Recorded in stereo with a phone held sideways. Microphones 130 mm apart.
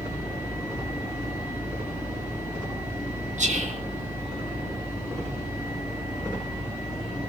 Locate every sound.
3.4 s whispering: 65° right (ahead or behind), 3 m